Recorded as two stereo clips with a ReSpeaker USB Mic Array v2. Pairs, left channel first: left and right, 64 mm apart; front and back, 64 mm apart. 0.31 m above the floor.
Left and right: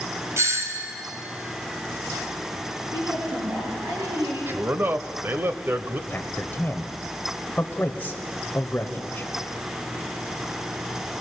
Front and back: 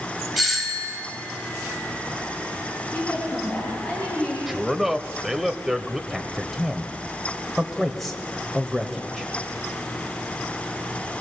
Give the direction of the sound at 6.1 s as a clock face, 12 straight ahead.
9 o'clock.